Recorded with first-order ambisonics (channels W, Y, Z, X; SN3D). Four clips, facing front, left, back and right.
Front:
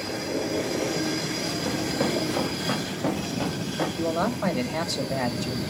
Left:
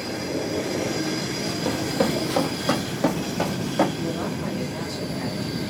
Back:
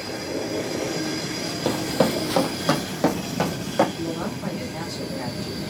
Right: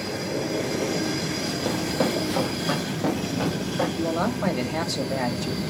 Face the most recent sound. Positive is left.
turn(degrees=-45)